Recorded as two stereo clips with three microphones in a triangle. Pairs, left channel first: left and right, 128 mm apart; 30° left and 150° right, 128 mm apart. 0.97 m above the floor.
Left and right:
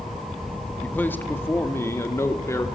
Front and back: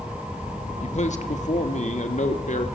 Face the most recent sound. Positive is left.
turn(degrees=25)